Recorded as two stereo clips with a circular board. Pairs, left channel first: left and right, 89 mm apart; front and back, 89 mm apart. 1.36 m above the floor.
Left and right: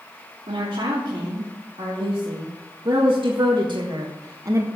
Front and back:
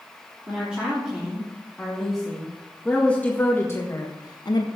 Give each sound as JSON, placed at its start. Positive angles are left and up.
{"t": 0.5, "sound": "a woman speaking", "azimuth_deg": -105, "distance_m": 3.5}